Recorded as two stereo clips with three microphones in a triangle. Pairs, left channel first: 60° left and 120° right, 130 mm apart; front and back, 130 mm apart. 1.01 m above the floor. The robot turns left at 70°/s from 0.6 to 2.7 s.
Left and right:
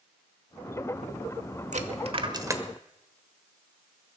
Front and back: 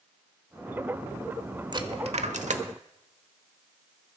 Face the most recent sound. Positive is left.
turn(degrees=165)